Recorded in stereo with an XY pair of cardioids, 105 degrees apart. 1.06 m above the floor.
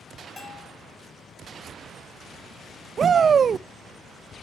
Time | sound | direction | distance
0.4 | a bell | 30° left | 3 m
3.0 | a shout | 40° right | 0.6 m